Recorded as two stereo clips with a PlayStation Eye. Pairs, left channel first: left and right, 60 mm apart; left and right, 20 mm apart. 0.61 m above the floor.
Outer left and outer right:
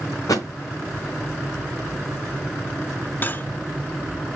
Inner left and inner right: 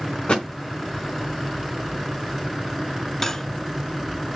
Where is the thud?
65° left (ahead or behind), 3.5 m.